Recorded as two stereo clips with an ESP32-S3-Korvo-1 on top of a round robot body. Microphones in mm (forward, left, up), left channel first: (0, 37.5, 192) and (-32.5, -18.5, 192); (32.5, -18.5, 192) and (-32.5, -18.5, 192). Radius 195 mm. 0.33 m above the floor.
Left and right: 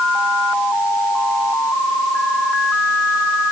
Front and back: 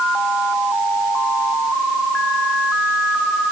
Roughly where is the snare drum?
I don't hear a snare drum.